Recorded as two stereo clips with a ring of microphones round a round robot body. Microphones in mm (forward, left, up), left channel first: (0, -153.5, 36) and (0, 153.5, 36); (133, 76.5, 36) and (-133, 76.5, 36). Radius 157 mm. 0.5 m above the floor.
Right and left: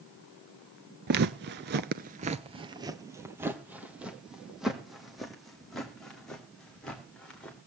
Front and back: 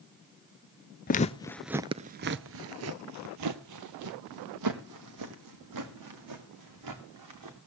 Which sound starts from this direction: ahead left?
Footsteps, at 1.1 s.